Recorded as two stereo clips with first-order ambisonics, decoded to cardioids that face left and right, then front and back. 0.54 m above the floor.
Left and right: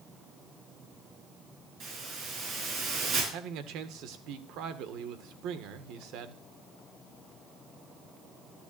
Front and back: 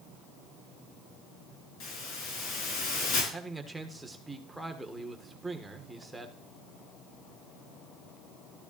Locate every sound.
1.8 s a hiss: 35° right, 4.5 m
3.3 s a man speaking: 95° right, 1.5 m